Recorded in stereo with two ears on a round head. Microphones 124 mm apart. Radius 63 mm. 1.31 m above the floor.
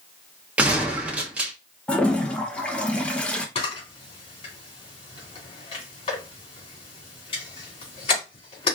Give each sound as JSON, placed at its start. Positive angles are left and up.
{"t": 0.6, "sound": "a gunshot", "side_deg": -10, "distance_m": 0.7}
{"t": 1.9, "sound": "a toilet flushing", "side_deg": 10, "distance_m": 0.7}
{"t": 3.5, "sound": "a camera shutter", "side_deg": 40, "distance_m": 2.5}